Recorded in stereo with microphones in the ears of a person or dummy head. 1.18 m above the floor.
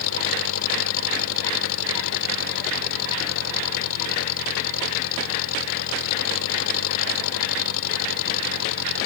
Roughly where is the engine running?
Left.